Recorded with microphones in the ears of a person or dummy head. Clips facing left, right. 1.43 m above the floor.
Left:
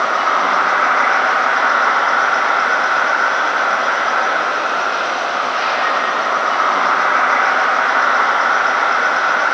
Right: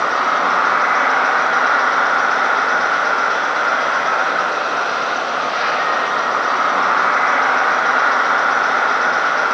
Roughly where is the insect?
Right.